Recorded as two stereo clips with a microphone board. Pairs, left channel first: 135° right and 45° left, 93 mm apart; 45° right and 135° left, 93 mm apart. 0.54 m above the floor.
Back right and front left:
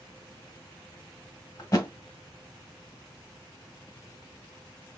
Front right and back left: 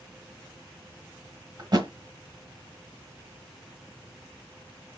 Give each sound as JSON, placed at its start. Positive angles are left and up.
{"t": 1.6, "sound": "a thud", "azimuth_deg": 175, "distance_m": 1.3}